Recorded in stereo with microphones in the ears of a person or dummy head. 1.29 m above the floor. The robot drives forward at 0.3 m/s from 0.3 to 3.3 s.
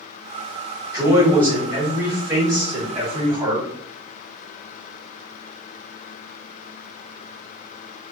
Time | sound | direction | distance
0.9 | a man speaking | 25° right (ahead or behind) | 1.2 m